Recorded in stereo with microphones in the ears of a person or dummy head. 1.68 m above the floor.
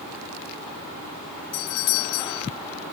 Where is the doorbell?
75° left (ahead or behind).